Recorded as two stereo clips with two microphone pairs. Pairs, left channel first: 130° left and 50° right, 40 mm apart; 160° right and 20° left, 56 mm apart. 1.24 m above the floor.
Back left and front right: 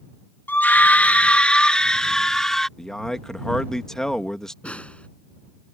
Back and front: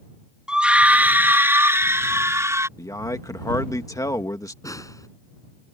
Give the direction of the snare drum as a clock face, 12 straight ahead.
6 o'clock.